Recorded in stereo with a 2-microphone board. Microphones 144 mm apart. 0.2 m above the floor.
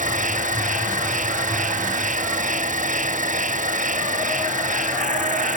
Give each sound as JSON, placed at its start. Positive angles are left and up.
{"t": 0.0, "sound": "an insect", "side_deg": -65}